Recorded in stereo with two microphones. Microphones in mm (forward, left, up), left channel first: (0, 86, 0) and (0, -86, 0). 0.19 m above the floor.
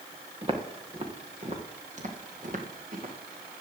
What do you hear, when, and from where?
0.4 s footsteps: 30° right (ahead or behind), 3 m; by 3.1 s 50° right (ahead or behind), 4 m